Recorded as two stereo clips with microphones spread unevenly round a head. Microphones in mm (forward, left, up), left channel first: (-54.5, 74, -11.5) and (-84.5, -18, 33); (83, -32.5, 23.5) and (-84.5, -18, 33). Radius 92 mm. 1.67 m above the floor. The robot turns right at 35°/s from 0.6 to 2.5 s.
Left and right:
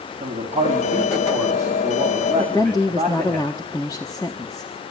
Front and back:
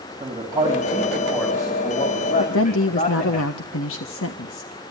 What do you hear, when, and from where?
0.2 s a man speaking: 115° right, 5 m; by 3.4 s 50° right, 5 m
2.4 s a woman speaking: 15° right, 1.4 m